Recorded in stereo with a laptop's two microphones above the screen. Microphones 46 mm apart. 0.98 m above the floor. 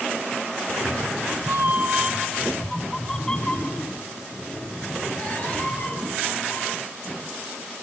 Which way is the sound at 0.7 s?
70° right (ahead or behind).